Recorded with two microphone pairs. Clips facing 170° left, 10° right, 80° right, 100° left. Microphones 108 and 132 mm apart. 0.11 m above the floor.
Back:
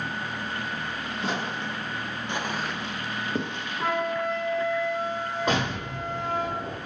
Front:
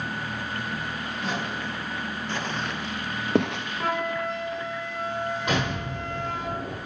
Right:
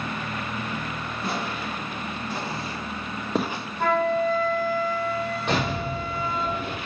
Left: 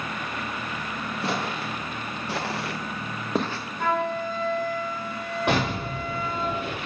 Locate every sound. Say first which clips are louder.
1.2 s footsteps: back 1 dB, left 1 dB; 110° left, 3 m; by 3.6 s 15° right, 1.0 m
3.8 s a flute: back 1 dB, right 4 dB; 20° right, 3.5 m
5.5 s an explosion: even, left 3 dB; 115° left, 4 m